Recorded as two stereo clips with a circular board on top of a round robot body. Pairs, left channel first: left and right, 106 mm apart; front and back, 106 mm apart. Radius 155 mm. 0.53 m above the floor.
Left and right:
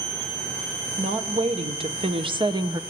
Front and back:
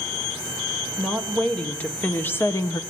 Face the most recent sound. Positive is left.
turn(degrees=-45)